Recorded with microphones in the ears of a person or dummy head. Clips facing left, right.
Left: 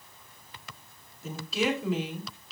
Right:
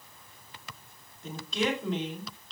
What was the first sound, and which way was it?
A woman speaking, centre (ahead or behind).